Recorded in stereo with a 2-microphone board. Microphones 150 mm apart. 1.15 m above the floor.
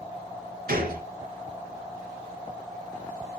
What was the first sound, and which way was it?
A gunshot, 80° right.